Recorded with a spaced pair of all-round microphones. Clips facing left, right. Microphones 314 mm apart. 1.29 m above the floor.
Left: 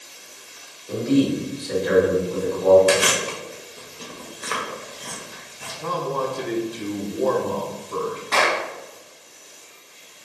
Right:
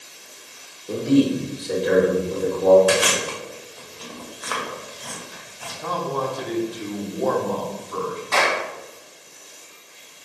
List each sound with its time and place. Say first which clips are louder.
0.9 s a man speaking: right 1 dB; 45° right (ahead or behind), 1.1 m
2.9 s chewing: left 1 dB; 30° left (ahead or behind), 0.7 m
5.8 s a man speaking: left 1 dB; 35° left (ahead or behind), 0.6 m
8.3 s a clap: even; 35° left (ahead or behind), 1.8 m